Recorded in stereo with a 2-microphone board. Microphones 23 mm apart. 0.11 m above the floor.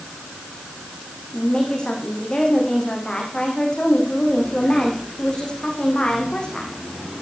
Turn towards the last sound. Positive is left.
turn(degrees=45)  # may be behind; listen again after turning